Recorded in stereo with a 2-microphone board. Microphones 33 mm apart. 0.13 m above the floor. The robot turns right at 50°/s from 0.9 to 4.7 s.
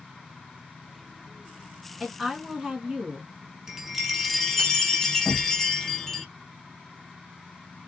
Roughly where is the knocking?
Centre.